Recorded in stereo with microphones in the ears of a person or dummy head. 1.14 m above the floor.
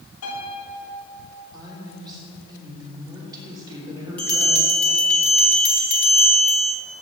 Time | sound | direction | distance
0.2 | a piano | 80° left | 3 m
1.5 | a woman speaking | 20° right (ahead or behind) | 3 m
4.2 | a bell | 5° left (ahead or behind) | 1.9 m